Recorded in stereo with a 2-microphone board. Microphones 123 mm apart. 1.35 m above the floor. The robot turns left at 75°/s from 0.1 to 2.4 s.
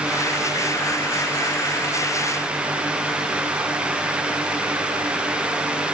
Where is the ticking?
No ticking in this recording.